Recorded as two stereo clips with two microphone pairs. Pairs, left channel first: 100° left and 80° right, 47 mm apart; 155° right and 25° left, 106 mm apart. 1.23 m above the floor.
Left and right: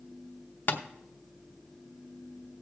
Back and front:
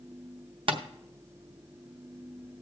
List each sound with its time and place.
0.7 s tapping: 60° left, 0.7 m